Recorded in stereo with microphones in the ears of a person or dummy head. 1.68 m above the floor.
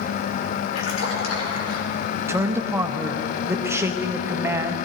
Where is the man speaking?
15° right (ahead or behind), 0.9 m.